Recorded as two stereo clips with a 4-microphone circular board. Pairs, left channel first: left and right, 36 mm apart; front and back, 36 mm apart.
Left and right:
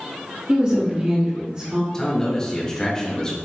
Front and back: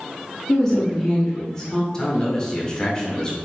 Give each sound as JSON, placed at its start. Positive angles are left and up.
{"t": 0.5, "sound": "a woman speaking", "azimuth_deg": -55, "distance_m": 0.8}
{"t": 1.9, "sound": "a man speaking", "azimuth_deg": 40, "distance_m": 0.9}